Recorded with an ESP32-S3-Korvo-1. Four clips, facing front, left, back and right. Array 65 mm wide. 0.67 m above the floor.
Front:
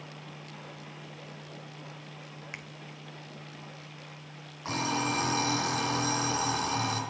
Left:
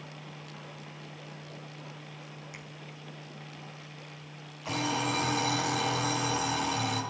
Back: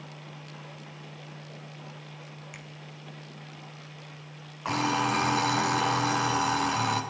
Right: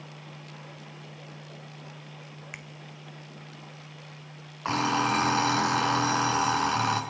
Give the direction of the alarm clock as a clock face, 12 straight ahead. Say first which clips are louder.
Right 5 dB, back 4 dB; 4 o'clock.